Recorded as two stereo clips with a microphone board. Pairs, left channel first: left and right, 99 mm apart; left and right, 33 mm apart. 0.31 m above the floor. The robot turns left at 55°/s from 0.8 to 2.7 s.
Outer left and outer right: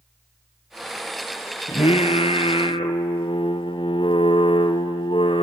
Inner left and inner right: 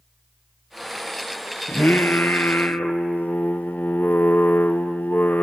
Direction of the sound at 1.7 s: 115° left.